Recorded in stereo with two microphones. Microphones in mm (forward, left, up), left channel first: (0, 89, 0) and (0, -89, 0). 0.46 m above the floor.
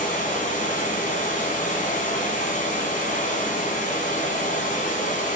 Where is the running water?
50° left (ahead or behind), 1.5 m.